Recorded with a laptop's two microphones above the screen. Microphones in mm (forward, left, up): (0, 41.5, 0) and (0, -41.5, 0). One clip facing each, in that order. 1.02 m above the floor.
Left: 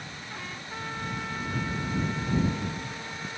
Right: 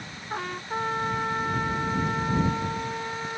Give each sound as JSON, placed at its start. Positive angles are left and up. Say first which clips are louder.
{"t": 0.3, "sound": "a trumpet", "louder": "right 10 dB", "side_deg": -50}